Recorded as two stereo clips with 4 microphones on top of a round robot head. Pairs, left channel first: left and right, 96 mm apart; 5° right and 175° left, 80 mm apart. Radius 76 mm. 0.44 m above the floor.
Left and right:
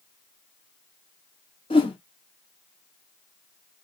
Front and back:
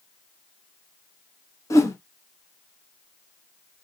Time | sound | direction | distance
1.7 | a whoosh | 45° left | 0.8 m